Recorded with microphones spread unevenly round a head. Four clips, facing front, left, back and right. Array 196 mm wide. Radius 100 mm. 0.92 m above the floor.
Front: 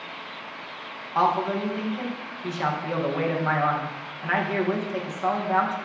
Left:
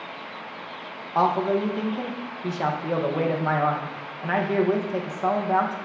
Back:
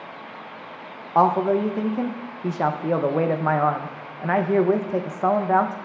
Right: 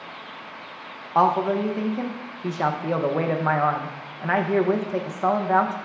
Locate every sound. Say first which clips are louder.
1.1 s a man speaking: right 2 dB, back 5 dB; 170° right, 0.6 m